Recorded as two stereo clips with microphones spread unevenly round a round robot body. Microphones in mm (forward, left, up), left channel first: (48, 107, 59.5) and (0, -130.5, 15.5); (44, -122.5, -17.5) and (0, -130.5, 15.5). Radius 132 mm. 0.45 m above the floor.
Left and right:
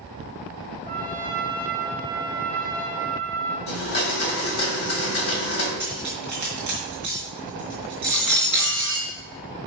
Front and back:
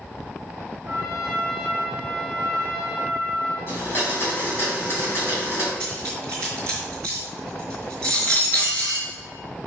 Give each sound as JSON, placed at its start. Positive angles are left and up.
{"t": 0.8, "sound": "a trumpet", "azimuth_deg": 165, "distance_m": 1.3}
{"t": 3.7, "sound": "a blender", "azimuth_deg": 55, "distance_m": 3.0}
{"t": 5.8, "sound": "cutlery clinking", "azimuth_deg": 165, "distance_m": 2.5}